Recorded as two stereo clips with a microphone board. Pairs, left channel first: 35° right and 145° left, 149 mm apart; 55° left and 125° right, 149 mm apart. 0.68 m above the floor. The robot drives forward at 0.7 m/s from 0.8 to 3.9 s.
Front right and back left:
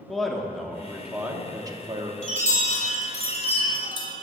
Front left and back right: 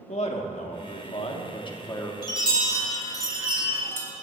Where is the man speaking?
55° left, 1.3 m; by 2.1 s 115° left, 1.2 m.